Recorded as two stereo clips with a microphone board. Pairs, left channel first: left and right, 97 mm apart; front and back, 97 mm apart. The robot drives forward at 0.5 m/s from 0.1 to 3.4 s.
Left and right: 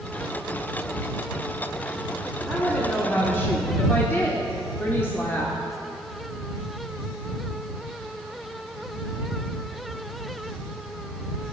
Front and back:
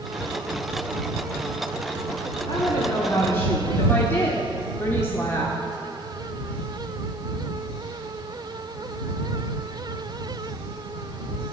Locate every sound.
2.5 s a woman speaking: 20° left, 1.2 m; by 5.5 s 40° left, 1.0 m